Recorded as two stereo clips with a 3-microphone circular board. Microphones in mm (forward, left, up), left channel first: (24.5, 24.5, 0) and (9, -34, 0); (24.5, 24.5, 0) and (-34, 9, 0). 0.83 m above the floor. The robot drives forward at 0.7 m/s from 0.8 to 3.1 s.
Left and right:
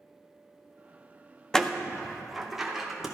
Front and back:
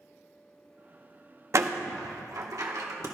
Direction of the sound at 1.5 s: 155° left.